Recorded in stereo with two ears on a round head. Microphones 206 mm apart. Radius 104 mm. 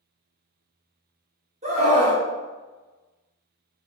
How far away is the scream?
About 0.8 m.